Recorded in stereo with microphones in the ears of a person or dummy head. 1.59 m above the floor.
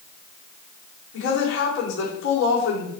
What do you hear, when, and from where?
1.1 s a woman speaking: 70° left (ahead or behind), 5.5 m